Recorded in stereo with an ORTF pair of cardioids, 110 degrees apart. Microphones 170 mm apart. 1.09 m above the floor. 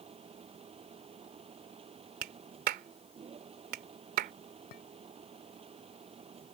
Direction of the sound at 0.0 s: 35° right.